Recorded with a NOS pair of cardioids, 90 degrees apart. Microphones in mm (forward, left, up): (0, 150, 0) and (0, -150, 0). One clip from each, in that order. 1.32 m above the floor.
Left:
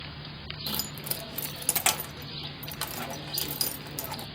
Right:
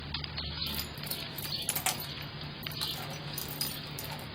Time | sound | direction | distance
0.7 | keys jangling | 30° left | 0.6 m